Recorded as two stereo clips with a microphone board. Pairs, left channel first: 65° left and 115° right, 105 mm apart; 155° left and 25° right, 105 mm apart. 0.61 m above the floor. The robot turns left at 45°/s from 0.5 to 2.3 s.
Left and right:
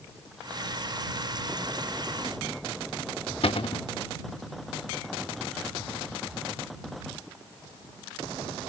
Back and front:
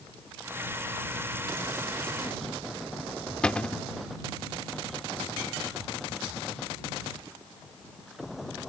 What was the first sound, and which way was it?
A cupboard door, 80° left.